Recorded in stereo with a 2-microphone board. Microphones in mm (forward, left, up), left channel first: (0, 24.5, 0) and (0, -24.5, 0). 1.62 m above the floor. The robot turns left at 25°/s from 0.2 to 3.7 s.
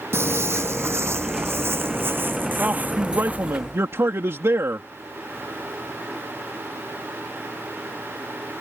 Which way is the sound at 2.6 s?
35° right (ahead or behind).